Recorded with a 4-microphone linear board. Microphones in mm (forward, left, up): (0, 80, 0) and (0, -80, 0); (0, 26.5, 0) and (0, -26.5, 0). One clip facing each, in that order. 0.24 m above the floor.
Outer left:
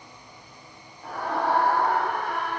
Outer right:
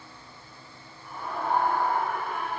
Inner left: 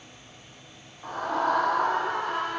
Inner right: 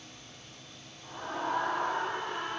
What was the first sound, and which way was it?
A scream, 80° left.